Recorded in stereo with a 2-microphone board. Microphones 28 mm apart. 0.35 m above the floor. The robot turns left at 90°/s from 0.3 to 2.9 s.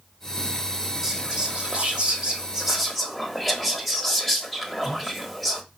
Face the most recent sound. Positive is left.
turn(degrees=180)